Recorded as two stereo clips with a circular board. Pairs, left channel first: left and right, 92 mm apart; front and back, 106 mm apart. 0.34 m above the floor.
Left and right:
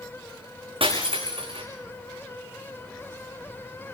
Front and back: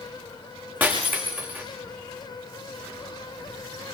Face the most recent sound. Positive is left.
turn(degrees=-105)